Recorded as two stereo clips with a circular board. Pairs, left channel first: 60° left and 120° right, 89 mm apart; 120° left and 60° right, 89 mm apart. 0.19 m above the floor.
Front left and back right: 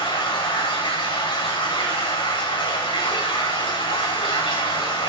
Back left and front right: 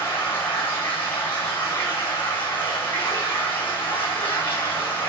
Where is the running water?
55° left, 6.5 m.